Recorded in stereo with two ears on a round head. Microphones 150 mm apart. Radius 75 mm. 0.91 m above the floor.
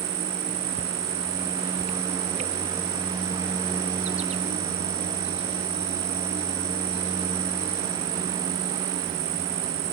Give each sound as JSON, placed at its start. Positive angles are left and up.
{"t": 0.0, "sound": "an insect", "side_deg": -40}